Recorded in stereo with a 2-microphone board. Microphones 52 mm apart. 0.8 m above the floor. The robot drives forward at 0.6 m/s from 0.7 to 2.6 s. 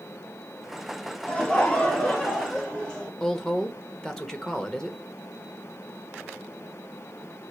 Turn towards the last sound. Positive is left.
turn(degrees=10)  # may be behind; listen again after turning